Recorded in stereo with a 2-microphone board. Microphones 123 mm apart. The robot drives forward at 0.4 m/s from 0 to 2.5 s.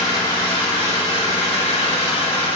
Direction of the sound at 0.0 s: 40° left (ahead or behind).